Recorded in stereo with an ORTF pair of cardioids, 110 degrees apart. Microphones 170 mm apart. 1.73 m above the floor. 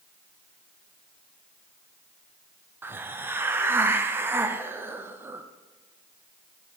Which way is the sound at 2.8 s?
10° right.